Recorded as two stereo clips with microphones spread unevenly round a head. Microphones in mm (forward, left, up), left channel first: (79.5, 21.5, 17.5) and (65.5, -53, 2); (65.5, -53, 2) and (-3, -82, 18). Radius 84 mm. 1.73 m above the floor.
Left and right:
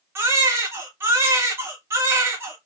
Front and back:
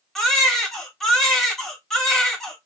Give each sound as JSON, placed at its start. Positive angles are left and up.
{"t": 0.1, "sound": "a baby crying", "azimuth_deg": -90, "distance_m": 1.0}